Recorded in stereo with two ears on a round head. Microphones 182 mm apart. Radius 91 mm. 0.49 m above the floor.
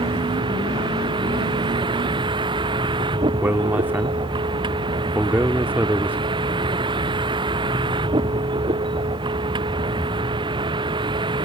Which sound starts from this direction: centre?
A man speaking, at 3.4 s.